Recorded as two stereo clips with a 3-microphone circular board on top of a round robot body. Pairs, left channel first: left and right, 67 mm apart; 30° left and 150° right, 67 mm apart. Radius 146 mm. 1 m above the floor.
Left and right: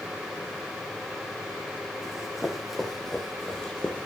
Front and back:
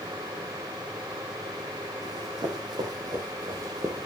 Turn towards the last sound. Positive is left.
turn(degrees=160)